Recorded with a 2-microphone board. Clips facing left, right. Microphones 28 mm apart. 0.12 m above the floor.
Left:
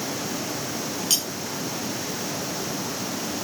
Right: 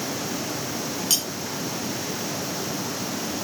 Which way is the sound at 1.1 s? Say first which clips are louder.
Even; 5° left (ahead or behind).